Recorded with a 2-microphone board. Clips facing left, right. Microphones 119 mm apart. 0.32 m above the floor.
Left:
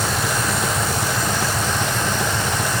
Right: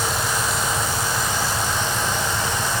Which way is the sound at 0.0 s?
70° left (ahead or behind).